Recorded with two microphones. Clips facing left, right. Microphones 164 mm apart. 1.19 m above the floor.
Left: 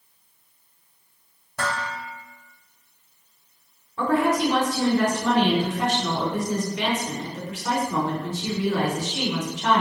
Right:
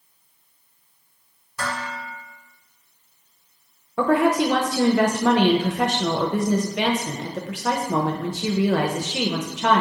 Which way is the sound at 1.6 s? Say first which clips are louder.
Left 1 dB; 65° left (ahead or behind).